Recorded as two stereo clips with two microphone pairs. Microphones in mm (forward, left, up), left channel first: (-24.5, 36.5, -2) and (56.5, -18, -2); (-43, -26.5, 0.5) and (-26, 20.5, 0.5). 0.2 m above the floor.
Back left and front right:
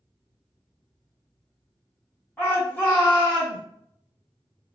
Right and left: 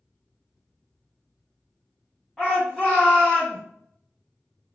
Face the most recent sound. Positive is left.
turn(degrees=160)